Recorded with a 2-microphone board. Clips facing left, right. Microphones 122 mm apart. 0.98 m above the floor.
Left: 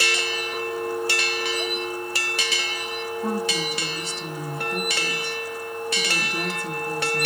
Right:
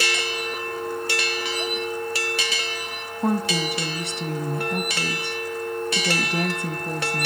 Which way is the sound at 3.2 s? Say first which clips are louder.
Right 4 dB; 65° right (ahead or behind).